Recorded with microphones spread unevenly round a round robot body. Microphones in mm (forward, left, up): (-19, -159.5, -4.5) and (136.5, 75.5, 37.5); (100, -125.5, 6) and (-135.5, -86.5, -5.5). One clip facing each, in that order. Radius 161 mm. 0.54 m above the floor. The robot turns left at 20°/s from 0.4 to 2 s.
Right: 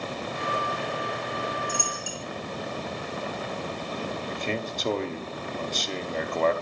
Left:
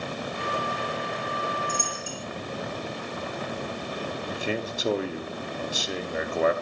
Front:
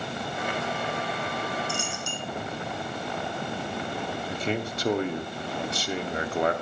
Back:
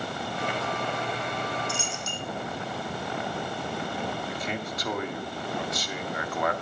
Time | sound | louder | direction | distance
1.7 | a dropped coin | even, front 1 dB | 175° left | 1.1 m
4.3 | a man speaking | left 4 dB, front 4 dB | 35° right | 0.8 m